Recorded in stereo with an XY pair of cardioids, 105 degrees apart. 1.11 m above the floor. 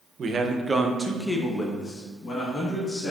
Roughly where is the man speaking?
Ahead right.